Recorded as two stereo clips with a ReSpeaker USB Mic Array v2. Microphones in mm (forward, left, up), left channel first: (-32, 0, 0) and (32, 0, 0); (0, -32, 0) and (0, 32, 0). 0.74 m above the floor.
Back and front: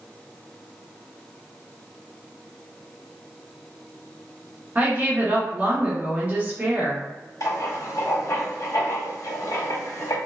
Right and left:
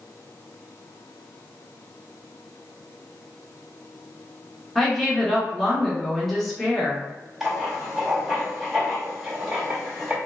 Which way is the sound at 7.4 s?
175° left.